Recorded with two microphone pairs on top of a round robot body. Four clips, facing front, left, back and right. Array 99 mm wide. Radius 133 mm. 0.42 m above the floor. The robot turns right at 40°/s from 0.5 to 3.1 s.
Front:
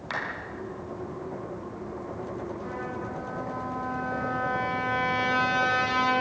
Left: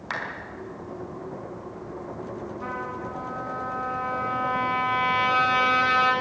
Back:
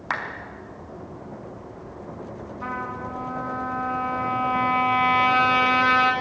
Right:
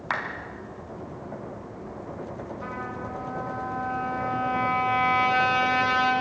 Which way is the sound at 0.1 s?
140° right.